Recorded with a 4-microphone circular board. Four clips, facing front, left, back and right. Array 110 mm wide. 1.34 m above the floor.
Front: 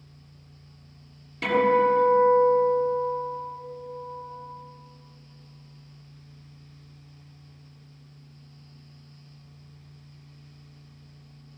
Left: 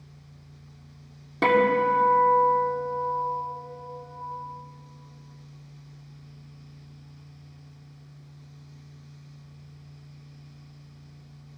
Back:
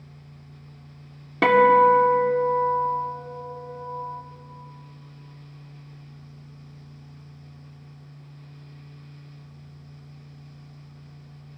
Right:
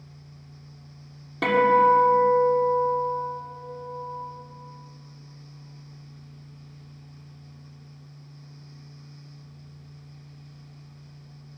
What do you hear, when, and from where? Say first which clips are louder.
1.4 s a guitar: right 2 dB, back 6 dB; 170° left, 1.9 m